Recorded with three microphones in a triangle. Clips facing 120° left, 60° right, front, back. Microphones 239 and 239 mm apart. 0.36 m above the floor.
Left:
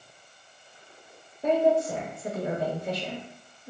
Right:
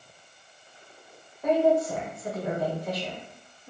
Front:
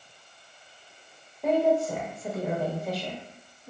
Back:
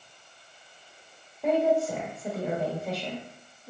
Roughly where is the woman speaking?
Left.